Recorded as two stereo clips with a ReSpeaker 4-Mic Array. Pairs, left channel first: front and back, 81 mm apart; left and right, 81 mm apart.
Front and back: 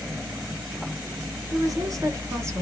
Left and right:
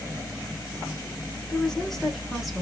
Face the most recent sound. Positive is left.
turn(degrees=-170)